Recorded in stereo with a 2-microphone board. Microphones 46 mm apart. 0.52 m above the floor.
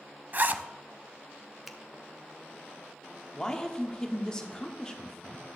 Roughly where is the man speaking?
Centre.